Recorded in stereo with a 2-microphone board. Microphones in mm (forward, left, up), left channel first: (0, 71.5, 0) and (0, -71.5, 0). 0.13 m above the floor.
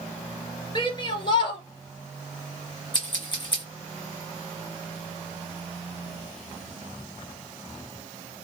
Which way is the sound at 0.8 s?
35° left (ahead or behind).